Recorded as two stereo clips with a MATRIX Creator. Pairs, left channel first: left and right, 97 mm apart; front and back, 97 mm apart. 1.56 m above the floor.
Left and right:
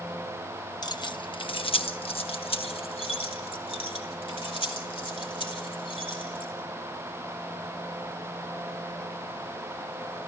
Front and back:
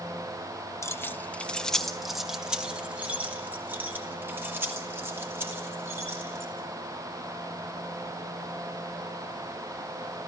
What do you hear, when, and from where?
0.8 s keys jangling: 55° left, 0.9 m; by 6.5 s 115° left, 4 m